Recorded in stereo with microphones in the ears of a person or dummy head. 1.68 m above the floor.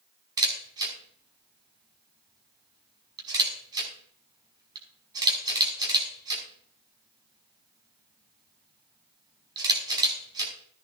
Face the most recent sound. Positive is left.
turn(degrees=-20)  # may be behind; listen again after turning